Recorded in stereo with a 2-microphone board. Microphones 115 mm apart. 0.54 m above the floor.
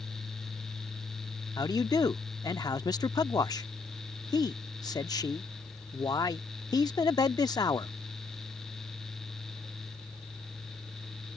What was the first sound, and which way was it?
A man speaking, 35° left (ahead or behind).